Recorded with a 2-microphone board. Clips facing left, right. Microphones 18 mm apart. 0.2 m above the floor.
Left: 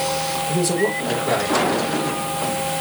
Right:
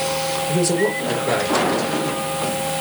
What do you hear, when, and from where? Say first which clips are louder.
0.5 s a man speaking: right 1 dB; 20° right (ahead or behind), 4.5 m